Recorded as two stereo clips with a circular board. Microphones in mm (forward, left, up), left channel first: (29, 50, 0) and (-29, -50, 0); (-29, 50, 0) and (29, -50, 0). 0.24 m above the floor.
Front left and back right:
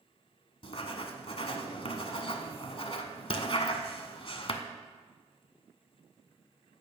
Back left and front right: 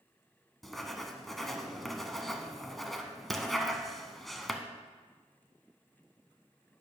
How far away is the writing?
About 0.8 m.